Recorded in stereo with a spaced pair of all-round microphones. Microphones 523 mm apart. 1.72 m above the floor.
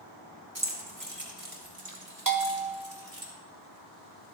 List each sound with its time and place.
0.6 s keys jangling: 30° right (ahead or behind), 2 m; by 3.3 s 70° right (ahead or behind), 3.5 m
2.3 s a bell: 40° right (ahead or behind), 1.0 m